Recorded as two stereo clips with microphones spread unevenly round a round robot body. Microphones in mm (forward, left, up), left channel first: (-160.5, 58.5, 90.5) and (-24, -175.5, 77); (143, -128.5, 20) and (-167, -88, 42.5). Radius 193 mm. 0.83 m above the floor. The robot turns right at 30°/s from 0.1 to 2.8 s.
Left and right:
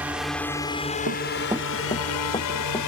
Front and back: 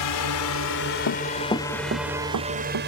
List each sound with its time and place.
0.0 s a drone: 25° left; by 2.9 s 110° left
1.1 s running footsteps: 25° right; by 2.9 s 160° right